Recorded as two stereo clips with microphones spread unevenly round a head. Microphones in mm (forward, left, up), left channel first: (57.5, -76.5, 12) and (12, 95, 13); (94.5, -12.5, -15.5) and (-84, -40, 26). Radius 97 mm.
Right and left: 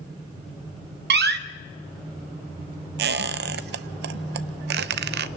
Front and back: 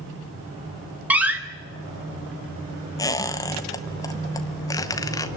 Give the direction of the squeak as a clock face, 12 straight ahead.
9 o'clock.